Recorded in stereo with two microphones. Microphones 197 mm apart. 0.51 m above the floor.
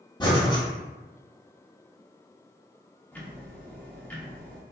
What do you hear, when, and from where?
0.2 s breathing: 20° left (ahead or behind), 0.9 m
3.1 s ticking: 10° left (ahead or behind), 0.6 m